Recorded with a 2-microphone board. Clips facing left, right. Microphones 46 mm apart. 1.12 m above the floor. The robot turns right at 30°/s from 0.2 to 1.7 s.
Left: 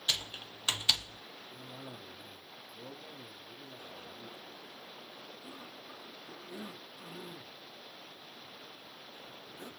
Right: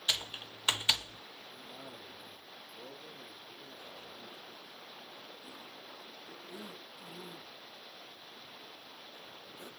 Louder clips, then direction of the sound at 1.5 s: Left 2 dB; 40° left (ahead or behind).